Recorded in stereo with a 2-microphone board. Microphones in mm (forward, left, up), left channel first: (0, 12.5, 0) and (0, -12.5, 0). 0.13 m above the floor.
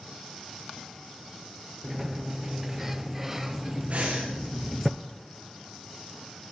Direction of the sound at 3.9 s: 55° right (ahead or behind).